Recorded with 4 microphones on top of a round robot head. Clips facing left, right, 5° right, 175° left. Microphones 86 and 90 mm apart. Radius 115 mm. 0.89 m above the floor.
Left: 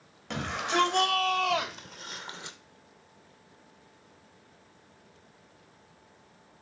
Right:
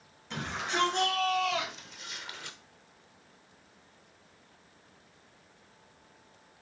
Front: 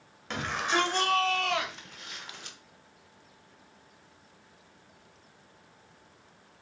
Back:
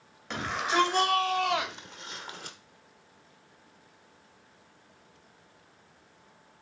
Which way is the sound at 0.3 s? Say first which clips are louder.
Left 4 dB, back 1 dB; 85° left.